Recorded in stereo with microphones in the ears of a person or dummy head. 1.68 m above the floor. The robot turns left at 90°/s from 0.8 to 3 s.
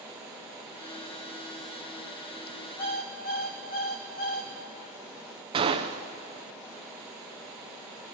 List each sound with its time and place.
2.8 s an alarm clock: 25° left (ahead or behind), 1.0 m; by 4.5 s 35° left (ahead or behind), 1.0 m
5.5 s a gunshot: 40° right (ahead or behind), 0.6 m